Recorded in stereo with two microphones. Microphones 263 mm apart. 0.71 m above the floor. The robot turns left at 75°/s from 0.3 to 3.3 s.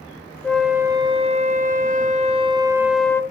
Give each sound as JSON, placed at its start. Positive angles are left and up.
{"t": 0.4, "sound": "a flute", "azimuth_deg": 10, "distance_m": 0.6}